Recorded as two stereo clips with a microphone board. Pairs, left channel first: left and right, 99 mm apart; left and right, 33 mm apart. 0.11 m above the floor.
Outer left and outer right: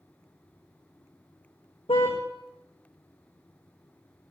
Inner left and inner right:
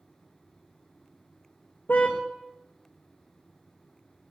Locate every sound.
1.9 s a car horn: 65° left (ahead or behind), 3 m